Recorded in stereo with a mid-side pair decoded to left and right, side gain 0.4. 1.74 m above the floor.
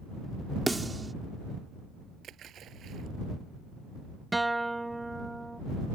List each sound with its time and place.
0.7 s a snare drum: 20° right
2.2 s a splash: 70° right
4.3 s a guitar: 10° right